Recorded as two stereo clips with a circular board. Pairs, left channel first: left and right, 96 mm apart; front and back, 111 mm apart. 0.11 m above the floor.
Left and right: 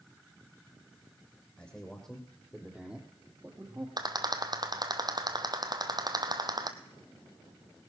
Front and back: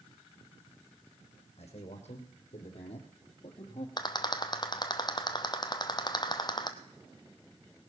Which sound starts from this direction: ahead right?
A rattle, at 4.0 s.